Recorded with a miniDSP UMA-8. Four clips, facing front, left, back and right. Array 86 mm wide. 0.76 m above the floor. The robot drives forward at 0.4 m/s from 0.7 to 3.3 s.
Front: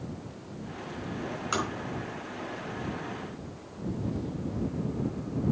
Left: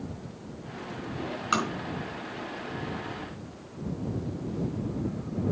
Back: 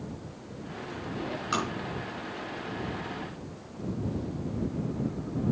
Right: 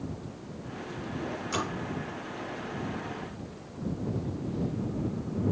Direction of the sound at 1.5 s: 80° left.